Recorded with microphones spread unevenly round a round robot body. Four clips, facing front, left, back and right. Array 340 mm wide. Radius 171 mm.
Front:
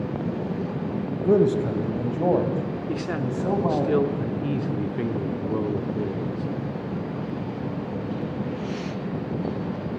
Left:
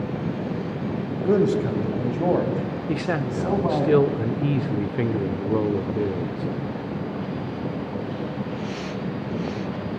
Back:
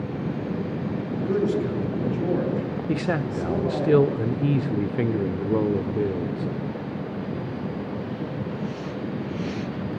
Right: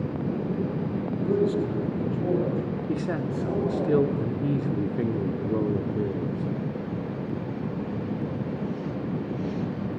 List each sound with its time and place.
1.2 s a man speaking: 35° left, 3 m; by 3.9 s 40° left, 4.5 m
2.9 s a man speaking: 135° left, 0.9 m